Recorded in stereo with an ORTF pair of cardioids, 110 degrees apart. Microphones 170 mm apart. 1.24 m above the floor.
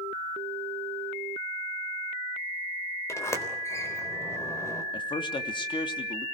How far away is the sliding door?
About 3.5 m.